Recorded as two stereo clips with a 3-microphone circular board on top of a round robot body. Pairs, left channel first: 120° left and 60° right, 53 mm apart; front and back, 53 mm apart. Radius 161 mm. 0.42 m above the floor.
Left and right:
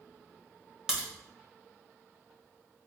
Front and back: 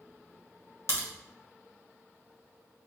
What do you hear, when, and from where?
0.9 s a crack: 20° left, 1.8 m